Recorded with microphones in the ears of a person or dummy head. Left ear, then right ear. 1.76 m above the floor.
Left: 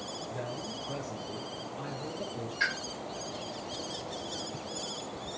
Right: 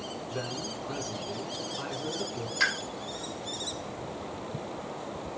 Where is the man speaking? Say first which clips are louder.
Right 5 dB; 45° right (ahead or behind), 4.5 m.